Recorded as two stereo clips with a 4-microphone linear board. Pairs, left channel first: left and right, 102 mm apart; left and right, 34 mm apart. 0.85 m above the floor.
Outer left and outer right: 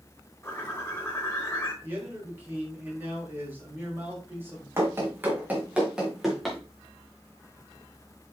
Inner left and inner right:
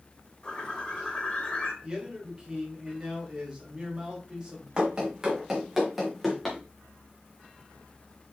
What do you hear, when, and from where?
0.4 s a bird: 25° left (ahead or behind), 4 m
1.8 s a man speaking: 20° right (ahead or behind), 3.5 m
4.8 s running footsteps: 25° right (ahead or behind), 3 m; by 6.6 s 5° left (ahead or behind), 3 m